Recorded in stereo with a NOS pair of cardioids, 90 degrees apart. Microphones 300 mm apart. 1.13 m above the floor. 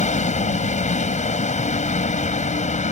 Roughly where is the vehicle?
Ahead left.